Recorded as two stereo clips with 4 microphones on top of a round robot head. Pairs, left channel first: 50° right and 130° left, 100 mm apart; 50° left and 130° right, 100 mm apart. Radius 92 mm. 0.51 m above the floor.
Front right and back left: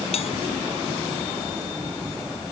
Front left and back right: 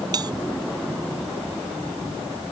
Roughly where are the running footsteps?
No running footsteps in this recording.